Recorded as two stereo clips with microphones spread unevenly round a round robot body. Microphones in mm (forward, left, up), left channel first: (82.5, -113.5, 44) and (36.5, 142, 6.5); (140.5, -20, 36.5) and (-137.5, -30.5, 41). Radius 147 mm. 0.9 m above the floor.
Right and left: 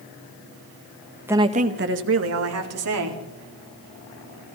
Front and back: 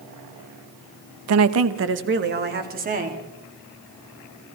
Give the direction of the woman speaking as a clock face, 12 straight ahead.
6 o'clock.